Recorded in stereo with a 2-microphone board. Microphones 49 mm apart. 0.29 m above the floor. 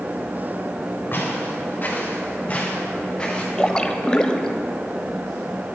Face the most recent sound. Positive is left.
turn(degrees=15)  # may be behind; listen again after turning